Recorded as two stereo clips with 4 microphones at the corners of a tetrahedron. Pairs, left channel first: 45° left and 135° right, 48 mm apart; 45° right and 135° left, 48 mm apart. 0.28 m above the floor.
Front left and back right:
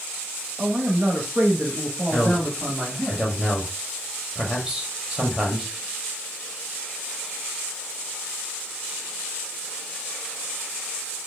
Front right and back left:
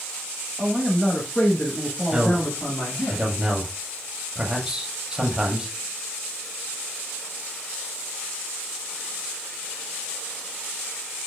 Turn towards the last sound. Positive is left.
turn(degrees=175)